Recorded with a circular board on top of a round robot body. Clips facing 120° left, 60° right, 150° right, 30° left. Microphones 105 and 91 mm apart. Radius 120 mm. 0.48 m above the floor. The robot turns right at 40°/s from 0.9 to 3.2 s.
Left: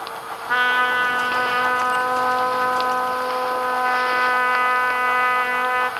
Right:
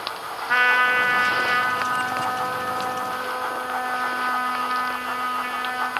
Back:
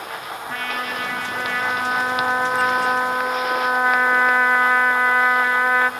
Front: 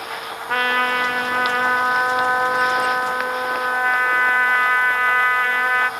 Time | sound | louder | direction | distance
0.5 | a trumpet | even, front 9 dB | 45° left | 2 m